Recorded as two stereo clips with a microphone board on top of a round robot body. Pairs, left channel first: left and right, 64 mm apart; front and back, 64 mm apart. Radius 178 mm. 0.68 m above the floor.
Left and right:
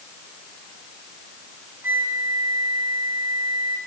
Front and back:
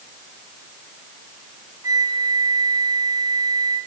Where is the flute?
145° right, 4.5 m.